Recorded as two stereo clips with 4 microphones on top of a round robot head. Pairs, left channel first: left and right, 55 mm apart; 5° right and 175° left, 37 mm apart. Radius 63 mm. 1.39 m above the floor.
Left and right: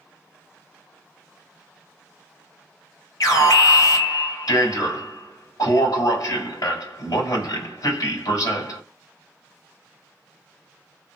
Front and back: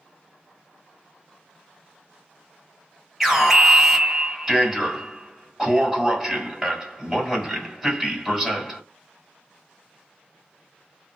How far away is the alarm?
About 3 m.